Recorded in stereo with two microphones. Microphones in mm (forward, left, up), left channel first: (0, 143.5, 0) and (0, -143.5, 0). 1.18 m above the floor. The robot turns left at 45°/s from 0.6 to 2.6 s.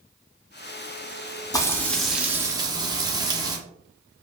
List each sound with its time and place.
1.5 s frying: 25° left, 0.6 m; by 3.6 s 25° right, 0.6 m